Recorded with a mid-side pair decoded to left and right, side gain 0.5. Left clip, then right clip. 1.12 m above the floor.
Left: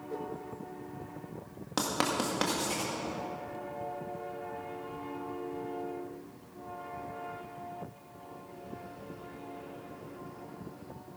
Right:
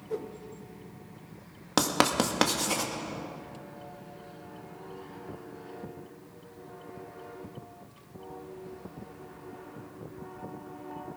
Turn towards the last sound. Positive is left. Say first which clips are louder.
# right 5 dB
turn(degrees=-45)